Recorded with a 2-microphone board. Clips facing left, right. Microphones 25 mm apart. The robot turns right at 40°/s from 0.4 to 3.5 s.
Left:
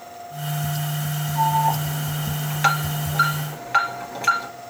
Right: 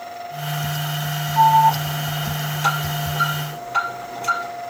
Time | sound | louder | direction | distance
1.4 | an alarm | right 7 dB | 10° right (ahead or behind) | 2 m